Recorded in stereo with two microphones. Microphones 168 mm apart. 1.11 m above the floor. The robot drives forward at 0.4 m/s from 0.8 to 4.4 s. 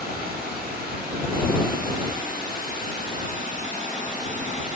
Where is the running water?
70° right (ahead or behind), 4 m; by 4.8 s 55° right (ahead or behind), 4.5 m.